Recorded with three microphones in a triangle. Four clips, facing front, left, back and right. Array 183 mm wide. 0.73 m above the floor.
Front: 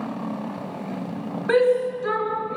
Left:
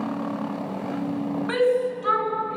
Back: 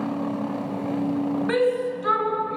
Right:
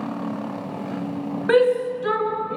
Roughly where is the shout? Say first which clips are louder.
Right 5 dB, front 7 dB; right.